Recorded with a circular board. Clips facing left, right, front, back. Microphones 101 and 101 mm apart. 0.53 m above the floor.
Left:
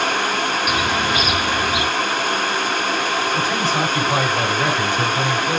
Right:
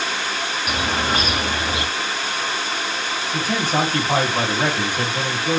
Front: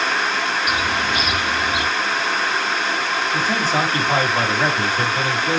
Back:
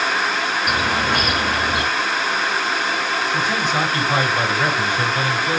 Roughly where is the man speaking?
Ahead right.